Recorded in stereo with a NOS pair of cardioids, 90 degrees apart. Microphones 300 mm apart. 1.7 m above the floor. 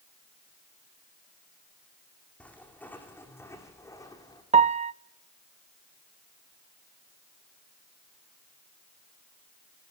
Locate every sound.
2.4 s footsteps: 5° left, 7 m; by 4.4 s 15° left, 7 m
4.5 s a piano: 25° right, 0.6 m